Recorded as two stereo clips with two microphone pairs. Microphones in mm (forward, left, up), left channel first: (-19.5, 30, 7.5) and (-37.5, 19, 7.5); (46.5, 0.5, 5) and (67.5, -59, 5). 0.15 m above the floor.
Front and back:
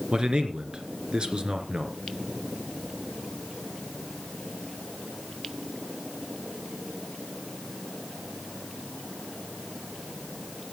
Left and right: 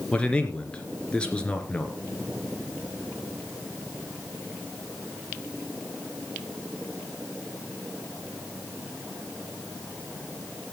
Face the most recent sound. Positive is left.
turn(degrees=180)